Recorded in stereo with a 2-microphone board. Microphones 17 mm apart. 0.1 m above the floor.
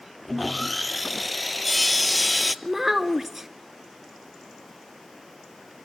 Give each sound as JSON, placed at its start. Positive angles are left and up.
{"t": 0.3, "sound": "sawing", "side_deg": 0, "distance_m": 0.6}
{"t": 2.6, "sound": "a child speaking", "side_deg": -20, "distance_m": 0.7}